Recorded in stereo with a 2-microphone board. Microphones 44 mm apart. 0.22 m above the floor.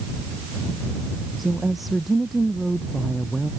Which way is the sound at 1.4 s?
5° right (ahead or behind).